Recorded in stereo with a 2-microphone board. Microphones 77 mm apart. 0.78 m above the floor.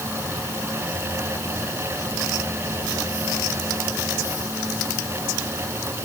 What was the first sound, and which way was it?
Only background noise.